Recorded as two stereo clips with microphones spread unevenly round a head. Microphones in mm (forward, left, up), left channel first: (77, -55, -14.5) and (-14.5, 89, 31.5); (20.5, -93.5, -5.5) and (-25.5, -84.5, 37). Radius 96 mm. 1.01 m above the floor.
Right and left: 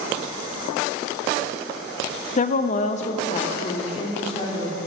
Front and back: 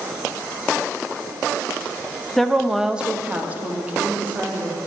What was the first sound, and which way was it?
A woman speaking, 45° right.